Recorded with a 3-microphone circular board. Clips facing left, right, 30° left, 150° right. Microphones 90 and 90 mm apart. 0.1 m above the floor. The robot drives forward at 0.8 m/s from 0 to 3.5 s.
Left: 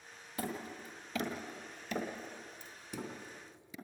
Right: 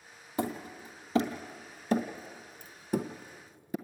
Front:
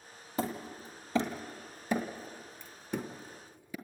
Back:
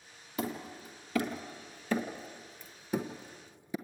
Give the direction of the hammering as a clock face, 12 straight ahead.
1 o'clock.